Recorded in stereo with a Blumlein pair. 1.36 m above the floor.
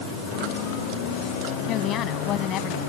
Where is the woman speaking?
30° left.